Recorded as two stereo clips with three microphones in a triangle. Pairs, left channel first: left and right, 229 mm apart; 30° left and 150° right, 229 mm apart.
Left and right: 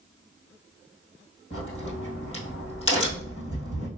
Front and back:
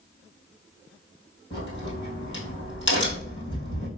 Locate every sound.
1.5 s a crack: 65° left, 2.0 m